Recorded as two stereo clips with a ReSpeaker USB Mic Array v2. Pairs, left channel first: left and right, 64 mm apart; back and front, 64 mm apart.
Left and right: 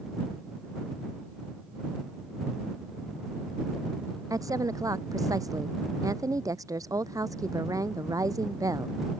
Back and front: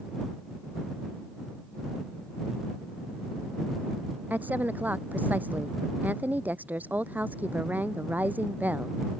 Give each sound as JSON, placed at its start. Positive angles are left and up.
{"t": 4.3, "sound": "a woman speaking", "azimuth_deg": -65}